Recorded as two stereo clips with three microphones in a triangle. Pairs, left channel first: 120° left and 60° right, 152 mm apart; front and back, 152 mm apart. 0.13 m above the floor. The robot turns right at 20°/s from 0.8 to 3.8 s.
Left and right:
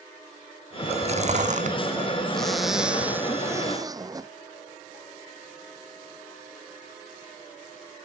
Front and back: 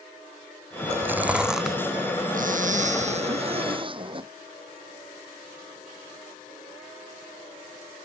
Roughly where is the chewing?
Right.